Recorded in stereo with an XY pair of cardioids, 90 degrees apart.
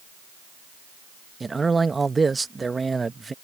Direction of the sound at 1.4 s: 30° right.